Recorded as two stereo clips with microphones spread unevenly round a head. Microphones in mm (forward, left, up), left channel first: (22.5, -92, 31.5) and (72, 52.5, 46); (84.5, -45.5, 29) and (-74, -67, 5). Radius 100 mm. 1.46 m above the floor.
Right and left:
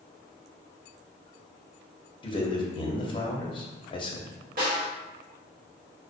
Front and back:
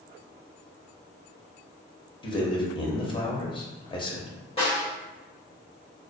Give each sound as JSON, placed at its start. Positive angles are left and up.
{"t": 2.2, "sound": "a man speaking", "azimuth_deg": -55, "distance_m": 0.7}
{"t": 4.6, "sound": "a snare drum", "azimuth_deg": 60, "distance_m": 1.2}